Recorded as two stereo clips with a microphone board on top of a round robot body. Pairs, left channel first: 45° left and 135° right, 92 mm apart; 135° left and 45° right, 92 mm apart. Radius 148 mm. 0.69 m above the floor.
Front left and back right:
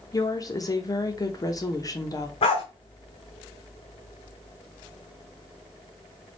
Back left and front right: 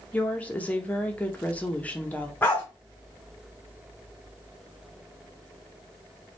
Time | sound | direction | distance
0.1 | a woman speaking | 70° left | 1.2 m
2.4 | a dog barking | 65° left | 0.6 m